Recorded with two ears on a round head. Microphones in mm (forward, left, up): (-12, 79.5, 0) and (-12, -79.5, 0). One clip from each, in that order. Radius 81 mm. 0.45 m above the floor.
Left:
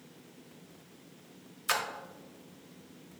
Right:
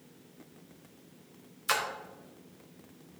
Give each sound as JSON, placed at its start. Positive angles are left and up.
{"t": 1.7, "sound": "a splash", "side_deg": 5, "distance_m": 1.0}